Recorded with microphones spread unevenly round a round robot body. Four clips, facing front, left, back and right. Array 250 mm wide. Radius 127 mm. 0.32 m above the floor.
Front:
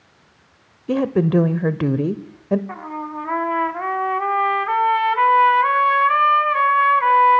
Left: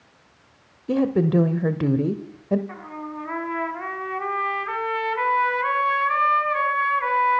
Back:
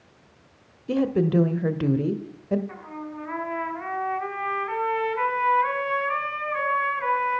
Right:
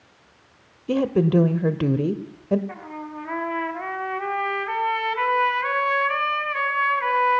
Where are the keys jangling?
I don't hear keys jangling.